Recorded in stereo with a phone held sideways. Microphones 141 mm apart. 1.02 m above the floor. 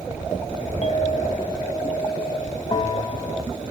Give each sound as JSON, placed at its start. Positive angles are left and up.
{"t": 0.8, "sound": "a clink", "side_deg": 40, "distance_m": 0.7}
{"t": 2.7, "sound": "a bell", "side_deg": 40, "distance_m": 1.3}